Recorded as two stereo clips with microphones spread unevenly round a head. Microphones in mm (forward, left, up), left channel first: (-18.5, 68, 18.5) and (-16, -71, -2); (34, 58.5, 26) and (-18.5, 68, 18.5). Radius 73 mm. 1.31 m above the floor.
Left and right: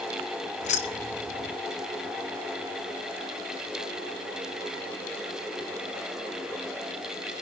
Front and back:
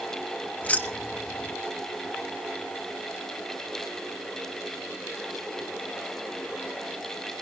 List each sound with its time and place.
0.6 s keys jangling: 50° left, 1.3 m